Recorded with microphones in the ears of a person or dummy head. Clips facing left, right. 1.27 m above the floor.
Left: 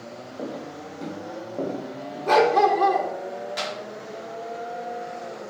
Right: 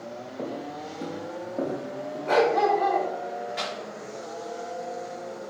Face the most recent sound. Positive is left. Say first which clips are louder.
# left 2 dB
turn(degrees=55)  # may be behind; listen again after turning